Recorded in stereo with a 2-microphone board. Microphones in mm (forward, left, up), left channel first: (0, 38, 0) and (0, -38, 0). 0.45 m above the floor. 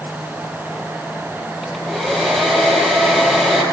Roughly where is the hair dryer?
Centre.